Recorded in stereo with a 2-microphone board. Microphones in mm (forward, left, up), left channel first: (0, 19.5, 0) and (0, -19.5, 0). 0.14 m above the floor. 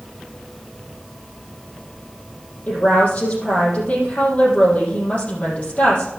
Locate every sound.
2.7 s a woman speaking: 40° left (ahead or behind), 4.5 m